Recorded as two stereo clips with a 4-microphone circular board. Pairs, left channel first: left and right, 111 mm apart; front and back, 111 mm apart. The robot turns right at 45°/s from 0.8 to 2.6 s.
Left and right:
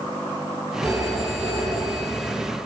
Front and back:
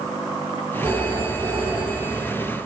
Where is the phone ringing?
155° right, 9.5 m; by 2.3 s 85° right, 9.5 m.